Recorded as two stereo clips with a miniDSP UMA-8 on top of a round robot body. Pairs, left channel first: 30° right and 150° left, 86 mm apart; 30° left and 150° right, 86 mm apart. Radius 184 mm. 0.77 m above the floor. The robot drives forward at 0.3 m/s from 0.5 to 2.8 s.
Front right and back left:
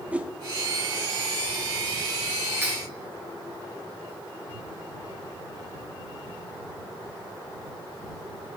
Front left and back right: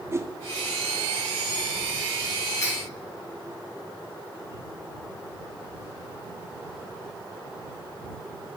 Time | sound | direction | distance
0.1 | a whoosh | 150° right | 1.0 m
2.6 | cutlery clinking | 85° left | 3 m